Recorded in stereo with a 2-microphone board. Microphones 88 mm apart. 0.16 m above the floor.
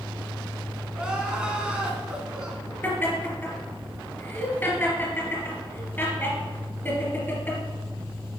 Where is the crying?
10° right (ahead or behind), 1.5 m.